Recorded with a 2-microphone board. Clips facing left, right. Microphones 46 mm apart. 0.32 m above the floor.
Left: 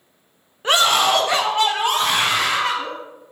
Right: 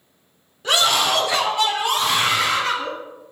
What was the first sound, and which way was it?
A scream, 35° left (ahead or behind).